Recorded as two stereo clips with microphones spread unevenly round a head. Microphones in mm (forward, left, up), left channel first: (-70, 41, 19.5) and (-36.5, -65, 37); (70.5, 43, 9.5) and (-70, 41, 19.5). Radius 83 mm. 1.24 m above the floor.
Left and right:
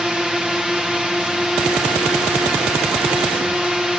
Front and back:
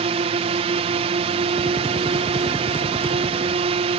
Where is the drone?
160° right.